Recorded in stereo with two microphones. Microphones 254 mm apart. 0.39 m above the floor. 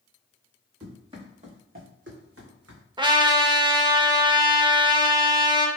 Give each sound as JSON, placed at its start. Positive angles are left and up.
{"t": 0.8, "sound": "running footsteps", "side_deg": -10, "distance_m": 1.8}
{"t": 3.0, "sound": "a trumpet", "side_deg": -20, "distance_m": 0.5}